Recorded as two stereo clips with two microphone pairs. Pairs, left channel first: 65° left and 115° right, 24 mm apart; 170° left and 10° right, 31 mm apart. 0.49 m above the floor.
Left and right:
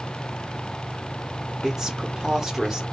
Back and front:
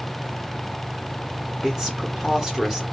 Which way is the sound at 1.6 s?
75° right.